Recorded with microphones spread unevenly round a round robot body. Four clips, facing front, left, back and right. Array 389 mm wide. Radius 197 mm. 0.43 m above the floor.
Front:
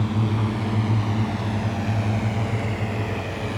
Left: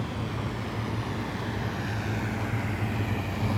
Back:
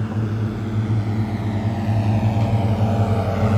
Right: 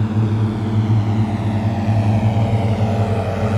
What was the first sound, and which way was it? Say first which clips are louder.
A drone: right 12 dB, front 1 dB; 80° right.